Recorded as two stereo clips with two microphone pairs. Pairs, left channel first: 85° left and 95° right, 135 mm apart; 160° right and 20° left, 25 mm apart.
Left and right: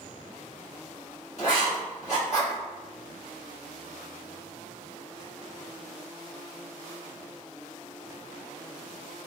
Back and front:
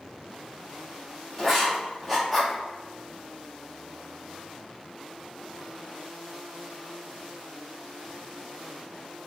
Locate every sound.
1.4 s writing: 120° left, 1.8 m